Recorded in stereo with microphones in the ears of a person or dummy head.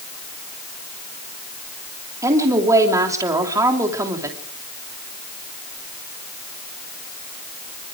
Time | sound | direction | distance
2.2 | a woman speaking | 15° right (ahead or behind) | 3 m